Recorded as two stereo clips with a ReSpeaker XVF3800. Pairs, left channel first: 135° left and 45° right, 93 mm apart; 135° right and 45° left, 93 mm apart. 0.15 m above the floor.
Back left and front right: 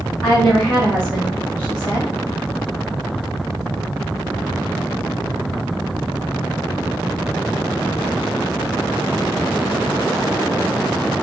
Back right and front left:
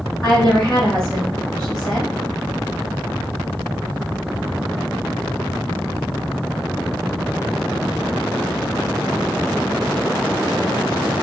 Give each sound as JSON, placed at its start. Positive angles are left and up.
{"t": 0.2, "sound": "a woman speaking", "azimuth_deg": 155, "distance_m": 1.5}